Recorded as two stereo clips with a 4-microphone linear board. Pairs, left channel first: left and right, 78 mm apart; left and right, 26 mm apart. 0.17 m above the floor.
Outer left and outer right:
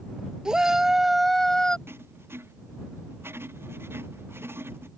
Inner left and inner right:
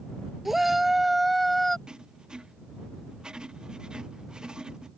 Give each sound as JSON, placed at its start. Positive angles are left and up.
{"t": 0.5, "sound": "a shout", "side_deg": -10}
{"t": 1.9, "sound": "writing", "side_deg": -30}